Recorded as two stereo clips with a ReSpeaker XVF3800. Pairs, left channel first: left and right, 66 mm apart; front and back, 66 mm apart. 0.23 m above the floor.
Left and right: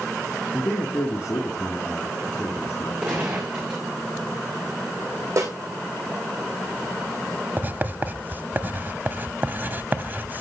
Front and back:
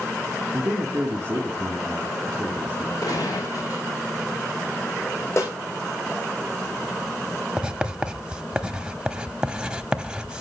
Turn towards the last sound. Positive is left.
turn(degrees=-115)